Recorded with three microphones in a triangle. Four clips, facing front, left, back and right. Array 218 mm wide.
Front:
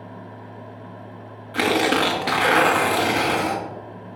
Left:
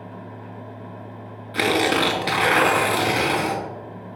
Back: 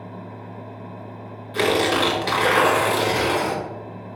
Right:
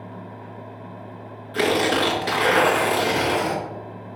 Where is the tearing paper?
35° left, 1.7 m.